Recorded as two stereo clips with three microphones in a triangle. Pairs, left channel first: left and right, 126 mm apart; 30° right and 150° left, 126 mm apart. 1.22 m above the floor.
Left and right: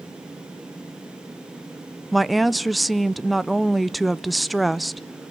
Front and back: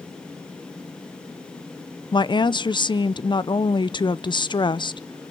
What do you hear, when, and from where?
2.1 s a woman speaking: straight ahead, 0.6 m